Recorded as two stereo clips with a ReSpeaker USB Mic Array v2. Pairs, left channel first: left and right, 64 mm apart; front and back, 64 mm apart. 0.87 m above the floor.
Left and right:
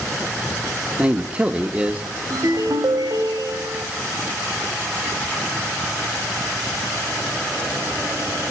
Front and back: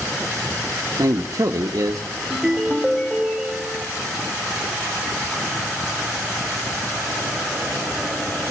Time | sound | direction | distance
1.0 | a man speaking | 160° right | 0.9 m
2.3 | a ringtone | 85° right | 2 m